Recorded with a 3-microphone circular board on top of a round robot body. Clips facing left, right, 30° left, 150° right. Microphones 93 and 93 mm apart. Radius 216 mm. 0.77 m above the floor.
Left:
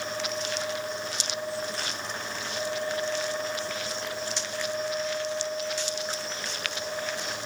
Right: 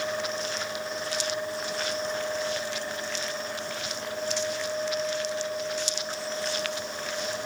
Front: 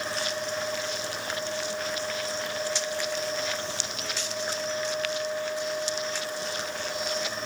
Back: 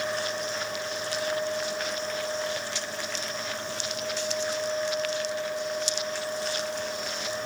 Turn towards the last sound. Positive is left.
No sound to turn to.